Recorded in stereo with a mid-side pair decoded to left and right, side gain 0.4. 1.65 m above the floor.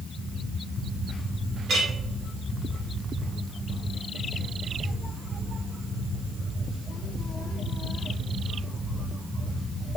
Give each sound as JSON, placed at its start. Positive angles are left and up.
{"t": 1.7, "sound": "a clink", "azimuth_deg": -55, "distance_m": 2.0}